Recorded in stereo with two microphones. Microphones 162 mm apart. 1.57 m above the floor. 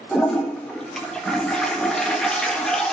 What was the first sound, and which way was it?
A toilet flushing, 5° left (ahead or behind).